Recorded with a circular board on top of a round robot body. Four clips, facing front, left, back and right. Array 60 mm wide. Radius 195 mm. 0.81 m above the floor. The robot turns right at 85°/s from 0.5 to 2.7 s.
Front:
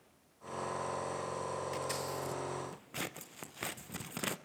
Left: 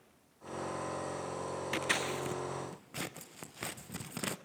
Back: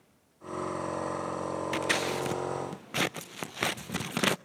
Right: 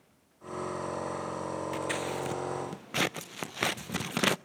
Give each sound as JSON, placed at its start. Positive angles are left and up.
{"t": 1.7, "sound": "scissors", "azimuth_deg": 145, "distance_m": 0.5}